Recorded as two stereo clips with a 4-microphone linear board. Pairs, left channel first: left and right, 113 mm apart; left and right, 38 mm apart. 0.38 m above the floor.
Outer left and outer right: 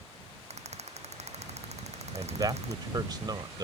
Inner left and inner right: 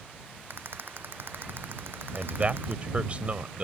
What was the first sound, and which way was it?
A rattle, 75° right (ahead or behind).